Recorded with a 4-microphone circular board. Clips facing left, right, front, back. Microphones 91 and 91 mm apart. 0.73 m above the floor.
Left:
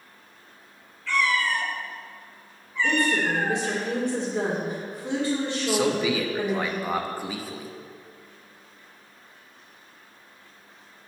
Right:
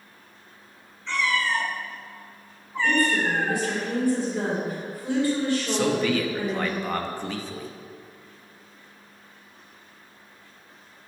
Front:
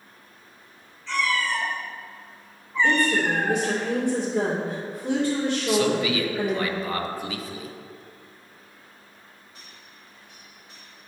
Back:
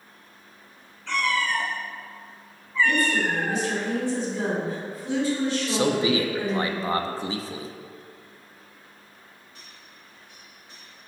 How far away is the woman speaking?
About 2.5 m.